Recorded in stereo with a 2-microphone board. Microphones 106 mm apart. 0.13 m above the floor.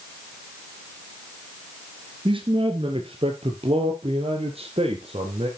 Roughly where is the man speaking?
Right.